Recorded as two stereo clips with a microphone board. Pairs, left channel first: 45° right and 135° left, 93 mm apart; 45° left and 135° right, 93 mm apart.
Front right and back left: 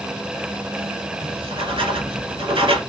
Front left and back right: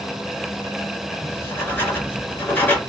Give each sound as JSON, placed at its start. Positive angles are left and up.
{"t": 1.2, "sound": "writing", "azimuth_deg": 115, "distance_m": 1.4}